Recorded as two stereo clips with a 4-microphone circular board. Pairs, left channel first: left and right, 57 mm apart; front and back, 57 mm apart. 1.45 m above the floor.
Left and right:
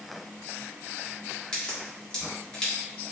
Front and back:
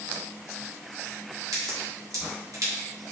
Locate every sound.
1.5 s a crack: 160° left, 3.5 m